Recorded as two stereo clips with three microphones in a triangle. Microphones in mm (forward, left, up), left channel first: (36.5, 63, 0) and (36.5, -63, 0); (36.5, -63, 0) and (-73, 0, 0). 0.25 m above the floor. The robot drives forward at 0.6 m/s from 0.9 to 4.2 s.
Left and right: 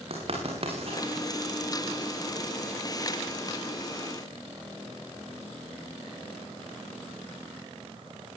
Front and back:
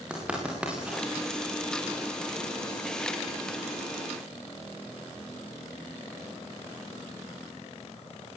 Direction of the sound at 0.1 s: 130° right.